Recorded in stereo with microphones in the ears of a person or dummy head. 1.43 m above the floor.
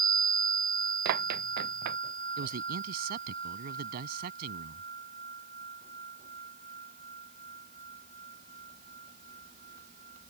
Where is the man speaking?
55° right (ahead or behind).